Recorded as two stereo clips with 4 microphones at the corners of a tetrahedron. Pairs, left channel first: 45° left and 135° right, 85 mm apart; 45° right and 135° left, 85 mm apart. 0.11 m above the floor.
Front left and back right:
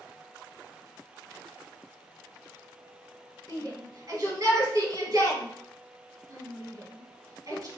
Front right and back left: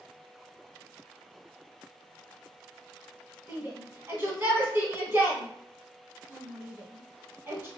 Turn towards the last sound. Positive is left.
turn(degrees=-170)